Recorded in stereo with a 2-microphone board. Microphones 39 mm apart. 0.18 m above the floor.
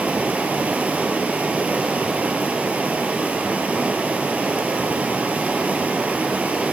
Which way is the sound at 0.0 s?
40° right (ahead or behind).